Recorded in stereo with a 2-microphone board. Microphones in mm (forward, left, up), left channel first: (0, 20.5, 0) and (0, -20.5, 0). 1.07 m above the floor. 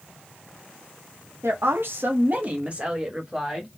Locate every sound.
1.4 s a woman speaking: 85° right, 0.8 m; by 3.7 s 10° right (ahead or behind), 1.6 m